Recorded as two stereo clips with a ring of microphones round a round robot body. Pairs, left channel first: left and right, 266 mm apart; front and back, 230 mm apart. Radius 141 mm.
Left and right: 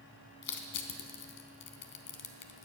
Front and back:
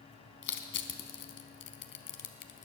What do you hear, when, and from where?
0.4 s crushing: 40° left, 1.1 m